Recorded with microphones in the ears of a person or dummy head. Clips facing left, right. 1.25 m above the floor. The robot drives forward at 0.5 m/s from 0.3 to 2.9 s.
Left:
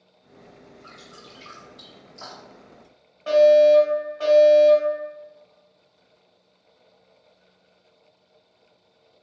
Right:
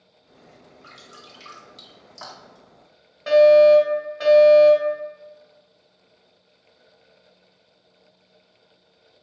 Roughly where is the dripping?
Right.